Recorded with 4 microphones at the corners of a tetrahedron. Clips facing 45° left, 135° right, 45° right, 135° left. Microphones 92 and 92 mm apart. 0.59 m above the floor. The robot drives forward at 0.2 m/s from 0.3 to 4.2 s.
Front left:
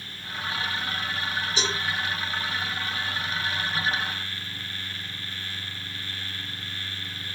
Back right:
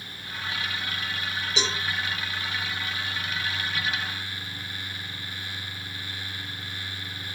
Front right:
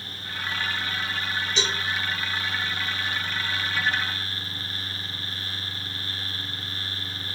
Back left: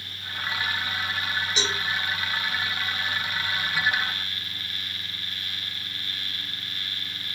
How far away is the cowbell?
About 2 m.